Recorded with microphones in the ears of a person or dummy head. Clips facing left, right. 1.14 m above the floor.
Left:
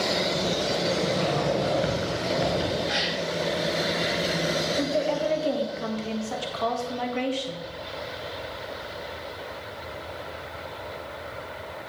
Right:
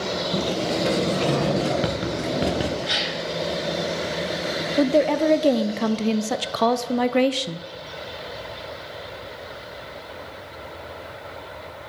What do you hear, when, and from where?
0.3 s a sliding door: 55° right (ahead or behind), 0.9 m
2.9 s a gasp: 50° right (ahead or behind), 2.5 m
4.8 s a woman speaking: 60° right (ahead or behind), 0.5 m